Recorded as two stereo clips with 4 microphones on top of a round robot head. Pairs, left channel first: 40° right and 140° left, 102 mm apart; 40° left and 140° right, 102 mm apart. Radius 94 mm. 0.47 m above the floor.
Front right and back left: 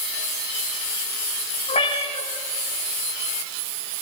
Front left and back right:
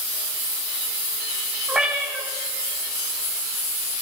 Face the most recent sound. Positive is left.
turn(degrees=-60)